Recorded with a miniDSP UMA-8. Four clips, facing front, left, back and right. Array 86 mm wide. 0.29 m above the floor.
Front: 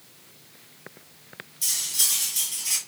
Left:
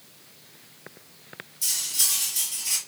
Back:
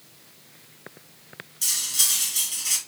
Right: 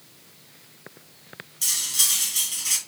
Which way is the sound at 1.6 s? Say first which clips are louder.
Right 5 dB, back 3 dB; 120° right.